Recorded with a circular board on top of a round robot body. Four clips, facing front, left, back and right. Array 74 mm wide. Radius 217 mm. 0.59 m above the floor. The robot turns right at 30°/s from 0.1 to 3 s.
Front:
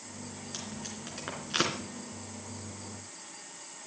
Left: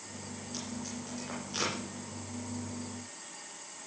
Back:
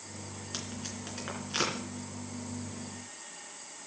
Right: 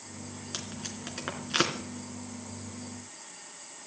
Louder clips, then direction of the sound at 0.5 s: Left 3 dB, back 3 dB; 100° right.